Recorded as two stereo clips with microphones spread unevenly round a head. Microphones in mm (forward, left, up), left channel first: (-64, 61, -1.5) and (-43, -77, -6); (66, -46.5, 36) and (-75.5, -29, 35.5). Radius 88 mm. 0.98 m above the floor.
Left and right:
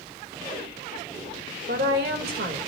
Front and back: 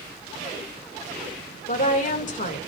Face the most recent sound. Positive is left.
turn(degrees=-40)